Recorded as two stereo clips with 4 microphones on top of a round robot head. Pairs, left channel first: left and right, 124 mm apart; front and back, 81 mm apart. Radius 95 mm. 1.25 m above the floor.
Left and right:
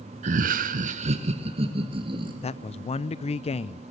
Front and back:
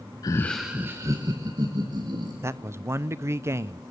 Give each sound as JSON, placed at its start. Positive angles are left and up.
{"t": 0.2, "sound": "laughter", "azimuth_deg": -50, "distance_m": 0.5}
{"t": 2.4, "sound": "a man speaking", "azimuth_deg": 125, "distance_m": 0.6}